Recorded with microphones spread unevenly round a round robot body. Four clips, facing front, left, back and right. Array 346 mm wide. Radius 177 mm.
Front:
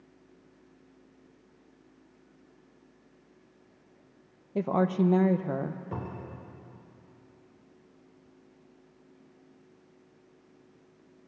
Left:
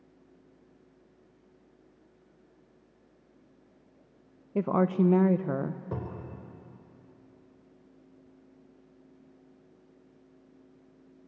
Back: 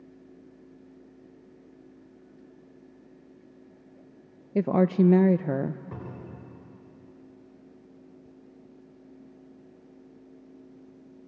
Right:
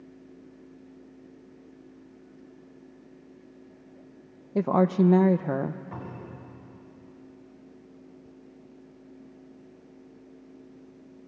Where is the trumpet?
I don't hear a trumpet.